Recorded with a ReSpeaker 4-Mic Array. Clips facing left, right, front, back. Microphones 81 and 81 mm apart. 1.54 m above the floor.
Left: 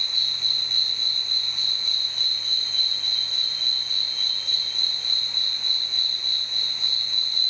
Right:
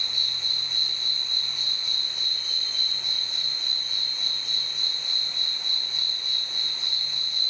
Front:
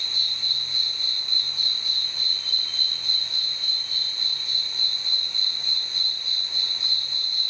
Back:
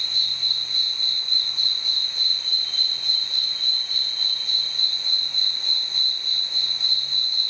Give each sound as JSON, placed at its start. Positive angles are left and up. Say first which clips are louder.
{"t": 0.0, "sound": "an insect", "louder": "left 1 dB, back 1 dB", "azimuth_deg": -175, "distance_m": 2.5}